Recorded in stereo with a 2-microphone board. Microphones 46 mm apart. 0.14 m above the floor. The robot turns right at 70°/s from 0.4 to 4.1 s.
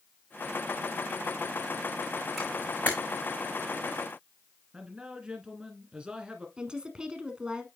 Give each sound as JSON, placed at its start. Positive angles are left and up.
{"t": 2.4, "sound": "a camera shutter", "side_deg": 0, "distance_m": 4.5}
{"t": 4.7, "sound": "a man speaking", "side_deg": -20, "distance_m": 1.7}
{"t": 6.6, "sound": "a woman speaking", "side_deg": -20, "distance_m": 1.1}